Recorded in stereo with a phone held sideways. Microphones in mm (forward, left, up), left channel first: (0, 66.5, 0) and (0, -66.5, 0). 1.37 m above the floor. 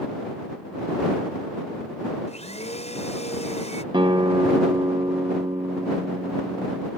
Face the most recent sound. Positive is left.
turn(degrees=-35)  # may be behind; listen again after turning